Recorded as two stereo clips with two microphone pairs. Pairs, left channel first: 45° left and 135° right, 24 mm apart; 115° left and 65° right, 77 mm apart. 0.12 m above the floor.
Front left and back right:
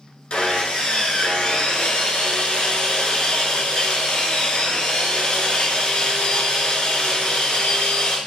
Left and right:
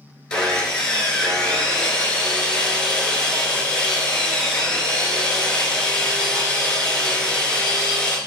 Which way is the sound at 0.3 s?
40° left.